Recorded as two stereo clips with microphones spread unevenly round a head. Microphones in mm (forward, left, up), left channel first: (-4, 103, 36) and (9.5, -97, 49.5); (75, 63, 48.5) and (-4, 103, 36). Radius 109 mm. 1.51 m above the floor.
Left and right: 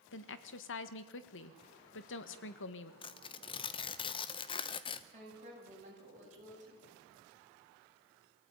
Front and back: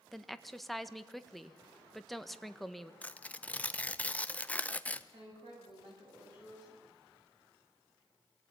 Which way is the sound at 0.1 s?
60° left.